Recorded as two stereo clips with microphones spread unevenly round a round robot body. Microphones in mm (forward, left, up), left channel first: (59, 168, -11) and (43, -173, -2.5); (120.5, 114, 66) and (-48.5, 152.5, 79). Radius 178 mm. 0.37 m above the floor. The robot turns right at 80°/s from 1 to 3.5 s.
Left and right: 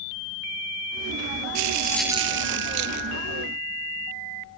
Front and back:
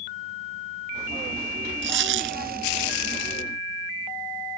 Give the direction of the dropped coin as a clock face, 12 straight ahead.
7 o'clock.